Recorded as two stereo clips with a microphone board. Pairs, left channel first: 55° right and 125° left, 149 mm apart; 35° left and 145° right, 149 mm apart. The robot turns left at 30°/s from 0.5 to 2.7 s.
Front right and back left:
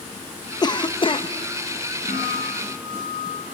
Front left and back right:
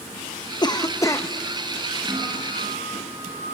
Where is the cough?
10° right, 0.9 m; by 1.3 s 30° right, 0.9 m.